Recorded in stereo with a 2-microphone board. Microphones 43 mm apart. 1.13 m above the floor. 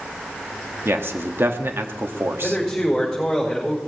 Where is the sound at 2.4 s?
5° left (ahead or behind), 5.5 m.